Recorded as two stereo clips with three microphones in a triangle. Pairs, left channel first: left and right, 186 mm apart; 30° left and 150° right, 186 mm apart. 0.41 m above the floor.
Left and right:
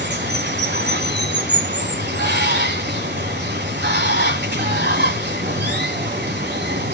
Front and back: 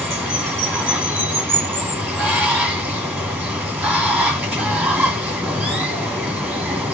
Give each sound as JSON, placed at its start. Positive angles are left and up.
{"t": 0.0, "sound": "running water", "azimuth_deg": -70, "distance_m": 1.7}